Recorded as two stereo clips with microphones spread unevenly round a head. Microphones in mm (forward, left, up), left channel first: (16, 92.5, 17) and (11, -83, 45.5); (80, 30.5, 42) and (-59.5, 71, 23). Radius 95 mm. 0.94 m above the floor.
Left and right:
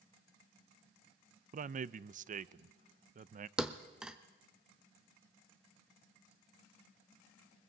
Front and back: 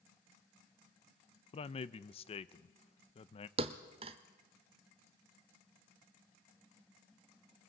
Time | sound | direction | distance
1.5 | a man speaking | 60° right | 0.5 m
3.6 | a thud | 160° right | 0.6 m